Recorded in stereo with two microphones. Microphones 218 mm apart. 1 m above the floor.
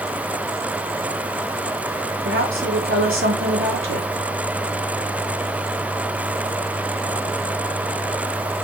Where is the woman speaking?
65° right (ahead or behind), 3.5 m.